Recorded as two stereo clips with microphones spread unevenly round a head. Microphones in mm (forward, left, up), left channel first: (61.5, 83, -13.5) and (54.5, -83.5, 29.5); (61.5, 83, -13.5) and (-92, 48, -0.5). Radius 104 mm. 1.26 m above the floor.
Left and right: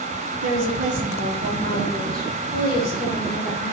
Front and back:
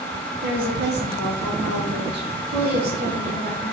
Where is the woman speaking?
115° right, 0.9 m; by 3.7 s 170° left, 1.7 m.